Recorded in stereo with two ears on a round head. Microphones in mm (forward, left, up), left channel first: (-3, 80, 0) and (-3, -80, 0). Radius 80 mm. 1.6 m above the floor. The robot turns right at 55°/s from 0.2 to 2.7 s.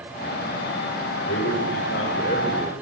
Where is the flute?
No flute in this recording.